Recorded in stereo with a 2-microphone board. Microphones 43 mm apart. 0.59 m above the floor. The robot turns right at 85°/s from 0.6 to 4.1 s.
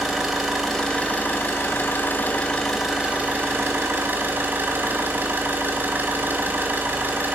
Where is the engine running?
5° right, 2.5 m; by 7.3 s 70° right, 2.5 m.